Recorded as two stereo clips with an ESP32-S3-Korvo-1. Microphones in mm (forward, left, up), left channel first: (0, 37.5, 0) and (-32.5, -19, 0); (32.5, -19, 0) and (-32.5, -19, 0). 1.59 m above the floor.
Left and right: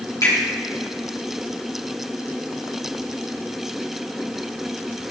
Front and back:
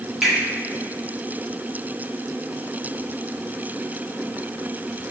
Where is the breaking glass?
I don't hear breaking glass.